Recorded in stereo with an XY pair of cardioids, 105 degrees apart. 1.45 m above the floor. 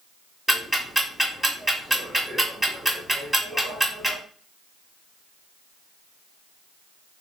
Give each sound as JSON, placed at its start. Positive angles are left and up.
{"t": 0.5, "sound": "ticking", "azimuth_deg": -10, "distance_m": 2.0}